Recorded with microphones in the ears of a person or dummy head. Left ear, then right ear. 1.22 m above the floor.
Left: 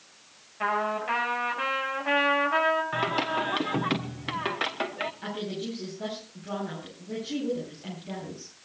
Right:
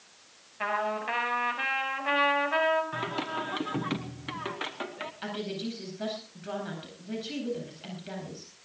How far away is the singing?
About 1.1 m.